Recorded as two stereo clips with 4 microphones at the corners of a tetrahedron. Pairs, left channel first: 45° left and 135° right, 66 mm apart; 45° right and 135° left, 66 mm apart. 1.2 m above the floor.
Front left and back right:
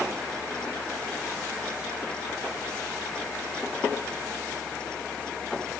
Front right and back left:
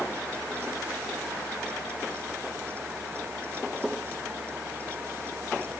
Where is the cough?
I don't hear a cough.